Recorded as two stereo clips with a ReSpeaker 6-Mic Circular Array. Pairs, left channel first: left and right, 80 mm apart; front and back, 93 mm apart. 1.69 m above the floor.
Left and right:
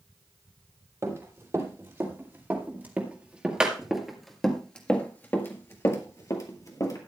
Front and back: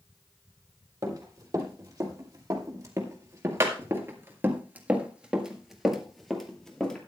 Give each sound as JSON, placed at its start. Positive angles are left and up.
{"t": 1.0, "sound": "running footsteps", "azimuth_deg": -135, "distance_m": 3.5}